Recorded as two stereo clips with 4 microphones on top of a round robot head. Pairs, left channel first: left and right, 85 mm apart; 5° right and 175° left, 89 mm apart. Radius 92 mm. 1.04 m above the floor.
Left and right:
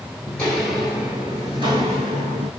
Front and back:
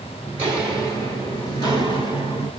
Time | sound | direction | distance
0.3 | footsteps | 135° left | 1.0 m